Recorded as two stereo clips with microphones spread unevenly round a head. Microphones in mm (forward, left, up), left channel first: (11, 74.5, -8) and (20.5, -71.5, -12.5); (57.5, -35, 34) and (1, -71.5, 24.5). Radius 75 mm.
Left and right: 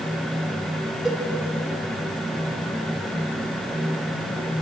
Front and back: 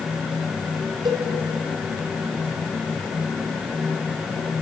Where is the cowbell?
175° right, 2.5 m.